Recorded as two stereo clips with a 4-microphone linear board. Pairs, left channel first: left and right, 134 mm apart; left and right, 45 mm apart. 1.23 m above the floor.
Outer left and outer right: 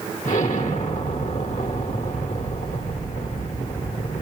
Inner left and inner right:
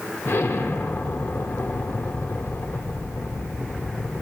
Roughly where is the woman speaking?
I don't hear a woman speaking.